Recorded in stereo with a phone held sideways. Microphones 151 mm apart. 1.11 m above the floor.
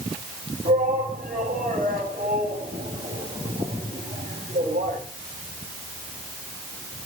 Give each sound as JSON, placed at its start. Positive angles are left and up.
{"t": 0.7, "sound": "a shout", "side_deg": -70, "distance_m": 9.5}